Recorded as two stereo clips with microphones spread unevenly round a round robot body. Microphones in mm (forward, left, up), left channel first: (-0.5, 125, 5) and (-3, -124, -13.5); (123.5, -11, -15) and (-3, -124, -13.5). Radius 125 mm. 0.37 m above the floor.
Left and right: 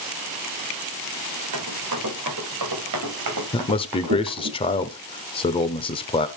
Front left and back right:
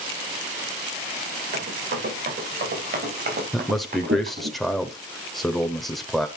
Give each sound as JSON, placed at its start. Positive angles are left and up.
{"t": 1.5, "sound": "running footsteps", "azimuth_deg": -120, "distance_m": 8.5}
{"t": 3.5, "sound": "a man speaking", "azimuth_deg": 125, "distance_m": 0.9}